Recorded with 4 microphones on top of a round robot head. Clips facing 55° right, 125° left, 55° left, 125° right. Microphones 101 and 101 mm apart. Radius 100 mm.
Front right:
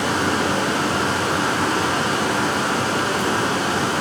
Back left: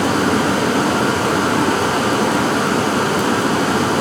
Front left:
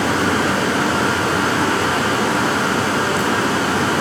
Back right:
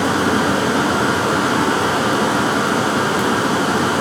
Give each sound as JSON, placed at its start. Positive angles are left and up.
{"t": 0.0, "sound": "running water", "azimuth_deg": 165, "distance_m": 1.4}